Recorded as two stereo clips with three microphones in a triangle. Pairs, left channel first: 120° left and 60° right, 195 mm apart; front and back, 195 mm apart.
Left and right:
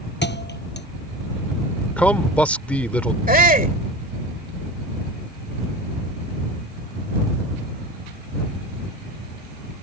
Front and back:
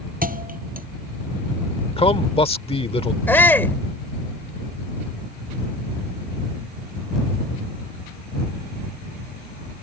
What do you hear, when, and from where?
0.2 s a thud: 140° left
2.0 s a man speaking: 40° left
3.3 s a shout: 75° right